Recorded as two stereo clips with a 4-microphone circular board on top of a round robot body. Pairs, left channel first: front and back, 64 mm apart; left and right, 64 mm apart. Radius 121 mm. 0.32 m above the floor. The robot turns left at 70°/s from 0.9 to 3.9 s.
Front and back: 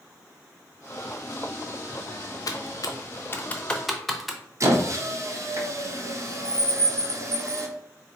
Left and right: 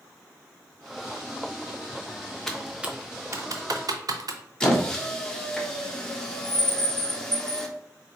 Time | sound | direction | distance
2.5 | typing on a keyboard | 10° left | 0.6 m
4.6 | a squeak | 170° left | 0.8 m